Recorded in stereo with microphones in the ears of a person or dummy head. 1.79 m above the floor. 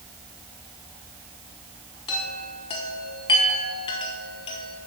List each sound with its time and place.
2.1 s a chime: 30° left (ahead or behind), 1.0 m